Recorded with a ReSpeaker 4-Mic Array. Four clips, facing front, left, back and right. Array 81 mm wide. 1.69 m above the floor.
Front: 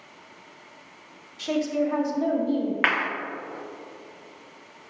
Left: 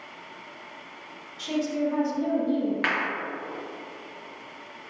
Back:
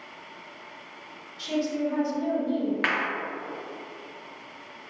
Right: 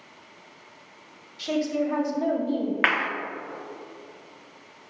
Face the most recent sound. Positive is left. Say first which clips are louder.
# right 3 dB, front 3 dB
turn(degrees=-55)